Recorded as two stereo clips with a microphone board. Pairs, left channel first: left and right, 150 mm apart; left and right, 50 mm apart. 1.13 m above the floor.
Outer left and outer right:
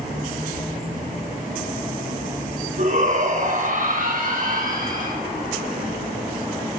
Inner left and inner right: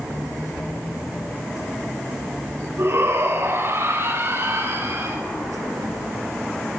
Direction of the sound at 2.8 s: 50° right (ahead or behind).